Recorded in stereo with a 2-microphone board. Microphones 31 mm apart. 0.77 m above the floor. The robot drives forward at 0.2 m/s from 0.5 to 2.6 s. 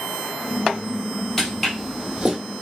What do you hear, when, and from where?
1.4 s footsteps: 5° left (ahead or behind), 1.3 m; by 2.4 s 30° right (ahead or behind), 0.8 m